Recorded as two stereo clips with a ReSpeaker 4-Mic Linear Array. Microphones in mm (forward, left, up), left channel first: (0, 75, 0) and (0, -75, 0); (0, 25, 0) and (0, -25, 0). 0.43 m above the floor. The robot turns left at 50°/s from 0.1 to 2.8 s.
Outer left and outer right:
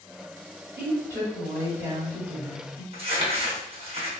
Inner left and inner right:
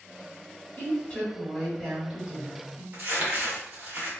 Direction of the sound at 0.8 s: 40° left.